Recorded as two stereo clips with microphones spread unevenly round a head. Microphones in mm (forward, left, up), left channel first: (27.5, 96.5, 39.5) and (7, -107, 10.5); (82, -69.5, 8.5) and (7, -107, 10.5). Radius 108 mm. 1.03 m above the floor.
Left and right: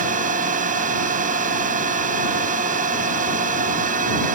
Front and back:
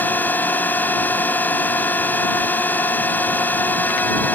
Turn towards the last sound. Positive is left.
turn(degrees=-40)